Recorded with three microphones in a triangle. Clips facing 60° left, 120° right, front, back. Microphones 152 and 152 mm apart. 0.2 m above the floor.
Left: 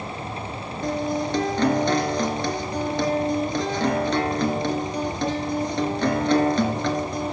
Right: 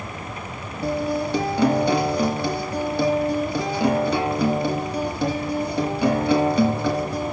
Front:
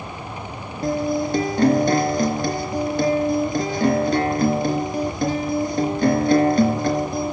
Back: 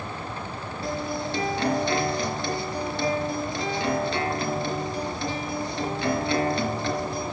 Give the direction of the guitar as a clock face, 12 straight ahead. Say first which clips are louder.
Right 2 dB, front 9 dB; 1 o'clock.